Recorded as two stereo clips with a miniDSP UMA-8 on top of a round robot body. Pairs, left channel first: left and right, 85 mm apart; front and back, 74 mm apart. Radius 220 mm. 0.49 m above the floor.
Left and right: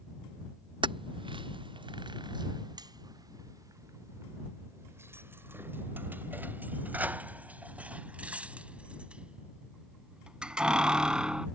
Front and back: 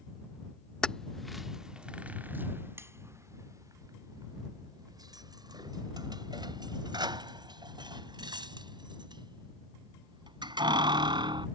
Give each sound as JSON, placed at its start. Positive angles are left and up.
{"t": 0.8, "sound": "keys jangling", "azimuth_deg": -80}